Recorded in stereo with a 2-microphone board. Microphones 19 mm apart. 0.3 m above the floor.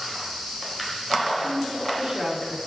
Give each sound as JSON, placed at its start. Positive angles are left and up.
{"t": 1.4, "sound": "a woman speaking", "side_deg": -40, "distance_m": 3.5}